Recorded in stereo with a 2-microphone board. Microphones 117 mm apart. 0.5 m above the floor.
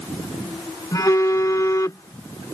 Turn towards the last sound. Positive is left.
turn(degrees=30)  # may be behind; listen again after turning